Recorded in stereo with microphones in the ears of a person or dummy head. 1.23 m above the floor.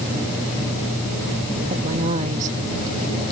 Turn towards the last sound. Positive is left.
turn(degrees=-45)  # may be behind; listen again after turning